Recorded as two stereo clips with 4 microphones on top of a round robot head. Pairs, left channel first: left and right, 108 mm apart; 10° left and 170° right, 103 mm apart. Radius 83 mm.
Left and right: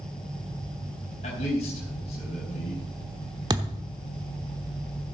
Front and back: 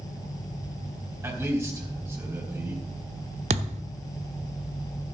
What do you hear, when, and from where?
1.2 s a man speaking: 125° left, 4 m
3.5 s a thud: 150° right, 0.9 m